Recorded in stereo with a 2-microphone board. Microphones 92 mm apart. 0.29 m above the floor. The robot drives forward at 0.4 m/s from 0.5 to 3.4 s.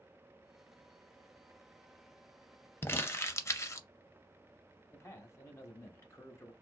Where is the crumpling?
25° left (ahead or behind), 0.6 m; by 3.9 s 30° left (ahead or behind), 0.5 m.